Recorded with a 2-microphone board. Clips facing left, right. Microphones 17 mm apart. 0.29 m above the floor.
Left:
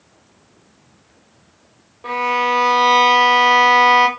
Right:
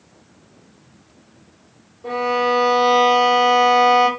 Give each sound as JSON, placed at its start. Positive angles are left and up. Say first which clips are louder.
{"t": 2.0, "sound": "a violin", "louder": "left 1 dB", "side_deg": 50, "distance_m": 0.7}